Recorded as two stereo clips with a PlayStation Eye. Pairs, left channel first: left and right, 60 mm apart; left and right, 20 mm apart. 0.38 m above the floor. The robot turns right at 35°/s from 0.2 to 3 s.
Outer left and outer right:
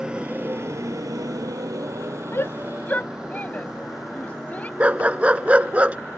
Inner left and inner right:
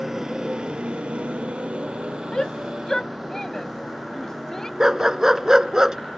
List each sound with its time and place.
0.0 s a motorcycle: 15° right (ahead or behind); by 6.2 s 10° left (ahead or behind)
2.3 s a shout: 45° left (ahead or behind); by 4.7 s 25° left (ahead or behind)
4.8 s a dog barking: 25° right (ahead or behind)